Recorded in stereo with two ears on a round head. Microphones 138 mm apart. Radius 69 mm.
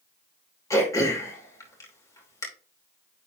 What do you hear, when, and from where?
0.7 s throat clearing: 20° left (ahead or behind), 2.5 m